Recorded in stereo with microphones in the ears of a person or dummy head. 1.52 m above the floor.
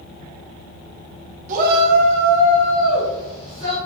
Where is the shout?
40° right (ahead or behind), 0.7 m; by 3.8 s 45° right (ahead or behind), 2.5 m.